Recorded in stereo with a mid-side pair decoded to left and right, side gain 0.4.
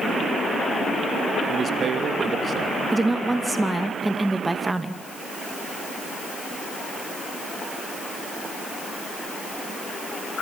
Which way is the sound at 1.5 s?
50° right.